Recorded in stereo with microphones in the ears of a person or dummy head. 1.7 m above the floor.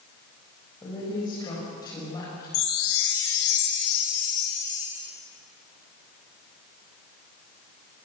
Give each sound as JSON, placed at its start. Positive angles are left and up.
{"t": 0.8, "sound": "a woman speaking", "side_deg": 20, "distance_m": 7.5}
{"t": 2.5, "sound": "a chime", "side_deg": 65, "distance_m": 3.5}